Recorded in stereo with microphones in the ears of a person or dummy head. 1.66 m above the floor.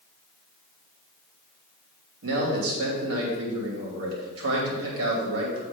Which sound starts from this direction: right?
A man speaking, at 2.2 s.